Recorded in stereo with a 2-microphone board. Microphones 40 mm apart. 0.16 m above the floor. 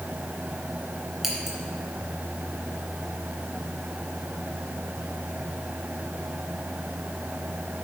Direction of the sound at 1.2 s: 10° right (ahead or behind).